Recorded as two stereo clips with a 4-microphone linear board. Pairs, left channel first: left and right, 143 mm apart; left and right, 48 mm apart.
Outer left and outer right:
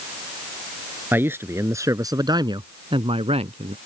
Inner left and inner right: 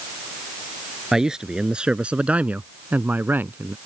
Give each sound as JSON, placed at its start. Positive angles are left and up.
{"t": 1.1, "sound": "a man speaking", "side_deg": -15}